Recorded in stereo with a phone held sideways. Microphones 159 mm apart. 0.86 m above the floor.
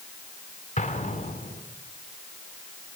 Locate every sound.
0.8 s an explosion: 50° left (ahead or behind), 2.5 m